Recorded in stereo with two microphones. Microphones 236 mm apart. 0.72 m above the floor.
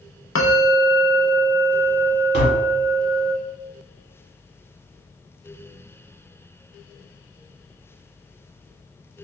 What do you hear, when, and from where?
0.3 s a bell: 60° left (ahead or behind), 0.6 m
2.3 s tapping: 45° right (ahead or behind), 1.4 m